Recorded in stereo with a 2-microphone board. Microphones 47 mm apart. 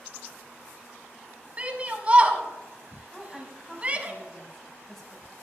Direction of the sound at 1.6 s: 30° right (ahead or behind).